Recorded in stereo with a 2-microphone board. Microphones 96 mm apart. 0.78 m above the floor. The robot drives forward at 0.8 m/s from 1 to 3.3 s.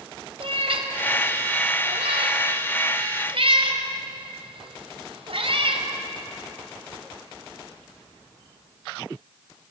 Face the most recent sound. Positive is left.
turn(degrees=-65)  # may be behind; listen again after turning